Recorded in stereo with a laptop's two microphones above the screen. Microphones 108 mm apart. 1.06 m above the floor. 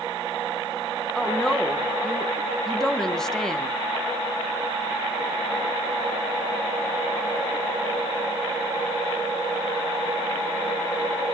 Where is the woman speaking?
5° left (ahead or behind), 0.8 m.